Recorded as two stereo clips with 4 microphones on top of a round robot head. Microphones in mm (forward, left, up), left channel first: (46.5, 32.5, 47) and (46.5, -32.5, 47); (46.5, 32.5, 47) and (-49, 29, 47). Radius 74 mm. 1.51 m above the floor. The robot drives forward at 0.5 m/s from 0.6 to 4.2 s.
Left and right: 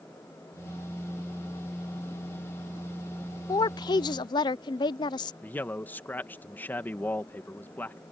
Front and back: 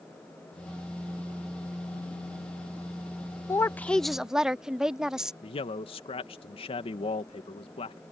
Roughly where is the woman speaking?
Ahead left.